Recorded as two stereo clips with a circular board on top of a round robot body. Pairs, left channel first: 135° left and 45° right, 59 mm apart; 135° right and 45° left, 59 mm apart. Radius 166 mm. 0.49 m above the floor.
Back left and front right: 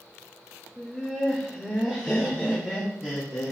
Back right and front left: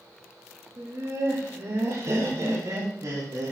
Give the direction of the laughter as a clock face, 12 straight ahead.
10 o'clock.